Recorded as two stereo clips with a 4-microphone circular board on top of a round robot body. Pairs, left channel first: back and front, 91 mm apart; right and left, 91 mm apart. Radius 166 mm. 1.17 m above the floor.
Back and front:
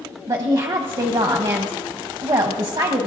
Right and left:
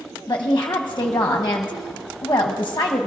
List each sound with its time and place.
0.3 s a woman speaking: 35° right, 0.9 m